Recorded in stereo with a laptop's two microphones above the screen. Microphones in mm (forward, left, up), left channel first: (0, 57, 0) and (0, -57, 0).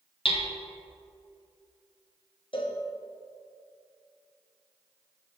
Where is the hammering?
55° left (ahead or behind), 0.7 m.